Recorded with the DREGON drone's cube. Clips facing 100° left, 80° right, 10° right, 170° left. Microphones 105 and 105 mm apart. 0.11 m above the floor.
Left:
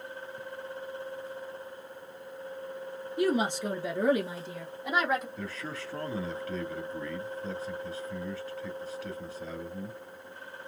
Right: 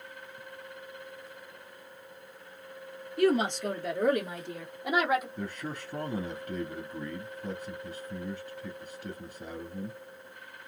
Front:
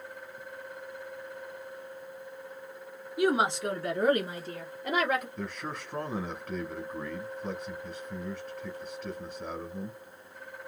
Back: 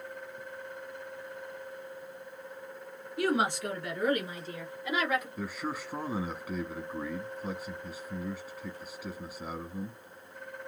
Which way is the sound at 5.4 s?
115° right.